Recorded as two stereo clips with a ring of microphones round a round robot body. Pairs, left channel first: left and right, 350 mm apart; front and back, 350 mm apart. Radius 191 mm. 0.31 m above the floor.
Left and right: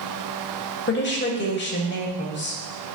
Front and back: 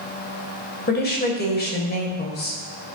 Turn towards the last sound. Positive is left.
turn(degrees=50)